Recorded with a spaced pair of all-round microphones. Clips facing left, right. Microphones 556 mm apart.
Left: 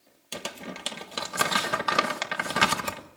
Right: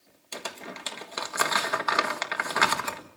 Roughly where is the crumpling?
Left.